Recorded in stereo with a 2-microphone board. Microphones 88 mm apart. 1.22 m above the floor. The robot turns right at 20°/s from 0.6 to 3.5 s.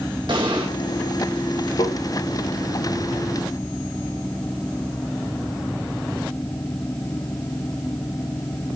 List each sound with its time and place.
0.3 s an explosion: 55° right (ahead or behind), 1.2 m
1.8 s tapping: 70° left (ahead or behind), 1.4 m; by 2.0 s 65° left (ahead or behind), 1.4 m